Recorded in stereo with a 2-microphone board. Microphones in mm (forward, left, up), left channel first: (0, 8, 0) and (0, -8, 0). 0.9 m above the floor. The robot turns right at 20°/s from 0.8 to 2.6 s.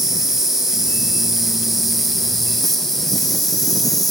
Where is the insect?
20° right, 1.2 m; by 4.1 s 15° left, 1.2 m.